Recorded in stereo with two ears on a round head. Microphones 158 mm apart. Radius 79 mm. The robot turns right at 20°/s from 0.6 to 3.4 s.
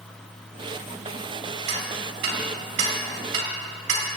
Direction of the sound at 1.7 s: 70° right (ahead or behind).